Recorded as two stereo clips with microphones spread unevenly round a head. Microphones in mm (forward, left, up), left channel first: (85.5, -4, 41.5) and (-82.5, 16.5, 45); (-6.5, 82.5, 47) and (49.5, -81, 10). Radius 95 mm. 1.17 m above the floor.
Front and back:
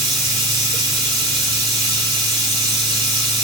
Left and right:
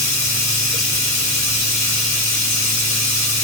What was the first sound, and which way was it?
Running water, 105° left.